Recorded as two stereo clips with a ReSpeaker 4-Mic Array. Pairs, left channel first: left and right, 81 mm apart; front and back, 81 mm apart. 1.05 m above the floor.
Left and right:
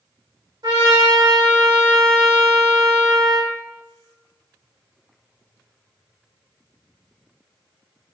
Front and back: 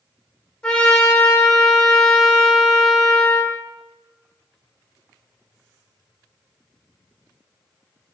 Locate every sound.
0.6 s a trumpet: 75° right, 1.4 m